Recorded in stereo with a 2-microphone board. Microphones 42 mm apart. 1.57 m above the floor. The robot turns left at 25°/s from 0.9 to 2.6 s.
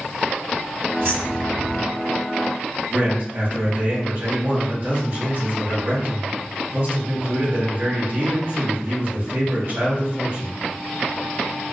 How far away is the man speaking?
About 1.7 m.